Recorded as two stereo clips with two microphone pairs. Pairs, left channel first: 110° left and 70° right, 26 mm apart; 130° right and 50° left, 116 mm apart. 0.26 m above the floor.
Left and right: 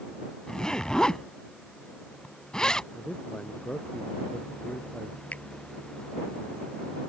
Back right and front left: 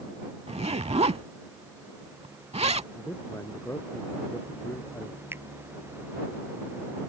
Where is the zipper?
60° left.